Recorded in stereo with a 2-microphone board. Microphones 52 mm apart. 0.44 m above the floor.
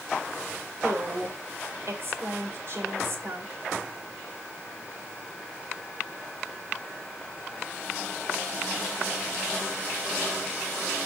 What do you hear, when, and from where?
0.8 s a woman speaking: 50° right (ahead or behind), 2 m